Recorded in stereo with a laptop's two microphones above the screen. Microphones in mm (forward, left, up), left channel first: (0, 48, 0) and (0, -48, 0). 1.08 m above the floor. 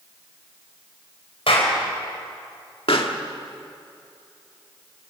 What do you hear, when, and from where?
1.5 s a clap: 85° left, 5 m
2.9 s a pop: 75° left (ahead or behind), 1.9 m